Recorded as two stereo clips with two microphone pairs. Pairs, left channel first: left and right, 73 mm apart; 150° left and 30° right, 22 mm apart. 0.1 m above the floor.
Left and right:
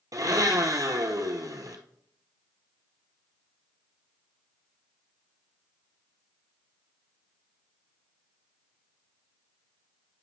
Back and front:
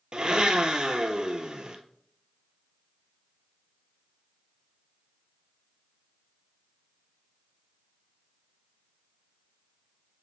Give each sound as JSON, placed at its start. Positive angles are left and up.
{"t": 0.1, "sound": "a blender", "azimuth_deg": -70, "distance_m": 1.0}